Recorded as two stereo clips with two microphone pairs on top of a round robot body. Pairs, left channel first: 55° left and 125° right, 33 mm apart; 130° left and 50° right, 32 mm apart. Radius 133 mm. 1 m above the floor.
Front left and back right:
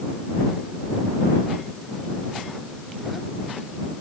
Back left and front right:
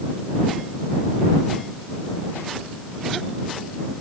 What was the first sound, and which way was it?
Only background noise.